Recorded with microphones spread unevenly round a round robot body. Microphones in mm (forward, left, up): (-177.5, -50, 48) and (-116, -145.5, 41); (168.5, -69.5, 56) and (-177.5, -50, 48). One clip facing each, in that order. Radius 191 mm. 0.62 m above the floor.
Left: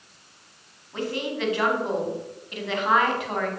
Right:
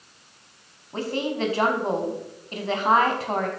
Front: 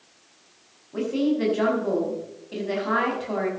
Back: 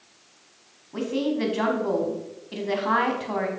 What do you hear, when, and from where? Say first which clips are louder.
0.9 s a woman speaking: right 2 dB, front 2 dB; 110° right, 5 m